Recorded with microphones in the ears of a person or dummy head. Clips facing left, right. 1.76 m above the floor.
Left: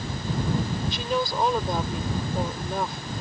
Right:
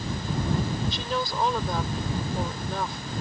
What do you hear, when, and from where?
0.9 s a woman speaking: 25° left (ahead or behind)